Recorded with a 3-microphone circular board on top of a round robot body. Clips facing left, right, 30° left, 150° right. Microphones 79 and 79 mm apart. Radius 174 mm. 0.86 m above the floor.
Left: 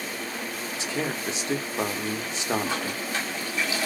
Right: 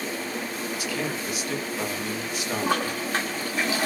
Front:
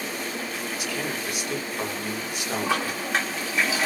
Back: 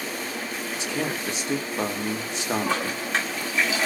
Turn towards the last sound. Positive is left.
turn(degrees=-55)